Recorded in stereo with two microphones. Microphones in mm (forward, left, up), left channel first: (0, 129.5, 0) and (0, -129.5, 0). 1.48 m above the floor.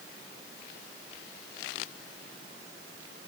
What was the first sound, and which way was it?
Only background noise.